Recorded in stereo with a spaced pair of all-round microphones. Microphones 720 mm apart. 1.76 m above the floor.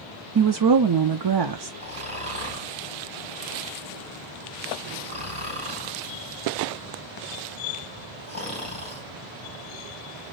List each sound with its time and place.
0.3 s a woman speaking: 40° right (ahead or behind), 0.5 m
1.8 s snoring: 10° right (ahead or behind), 2.5 m